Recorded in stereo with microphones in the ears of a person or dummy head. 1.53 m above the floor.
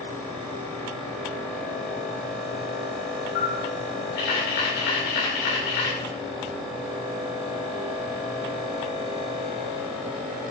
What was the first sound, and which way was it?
A camera shutter, 65° left (ahead or behind).